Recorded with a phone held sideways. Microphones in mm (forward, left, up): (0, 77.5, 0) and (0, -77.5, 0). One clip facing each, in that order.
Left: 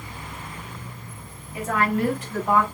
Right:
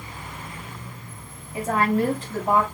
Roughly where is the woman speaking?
Right.